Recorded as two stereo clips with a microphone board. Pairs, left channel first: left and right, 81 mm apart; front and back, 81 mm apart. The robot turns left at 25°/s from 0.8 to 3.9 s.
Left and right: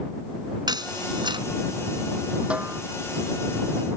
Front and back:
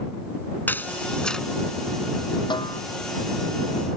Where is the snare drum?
15° right; by 2.8 s 25° right.